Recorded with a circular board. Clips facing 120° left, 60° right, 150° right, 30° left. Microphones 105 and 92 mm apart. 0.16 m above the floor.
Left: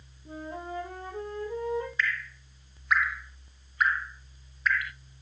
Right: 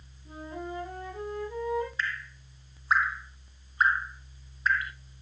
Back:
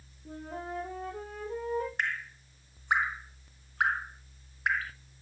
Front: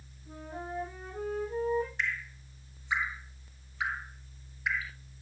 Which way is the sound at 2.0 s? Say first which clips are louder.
Left 3 dB, back 1 dB; 120° right.